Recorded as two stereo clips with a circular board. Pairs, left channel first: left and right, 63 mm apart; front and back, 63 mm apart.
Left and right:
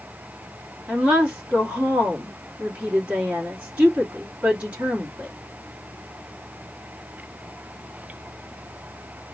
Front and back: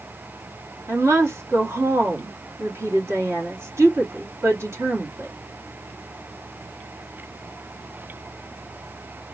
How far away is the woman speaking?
About 1.5 m.